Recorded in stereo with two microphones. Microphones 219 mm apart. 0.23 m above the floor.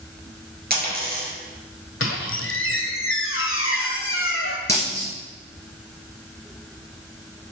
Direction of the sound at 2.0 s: 75° left (ahead or behind).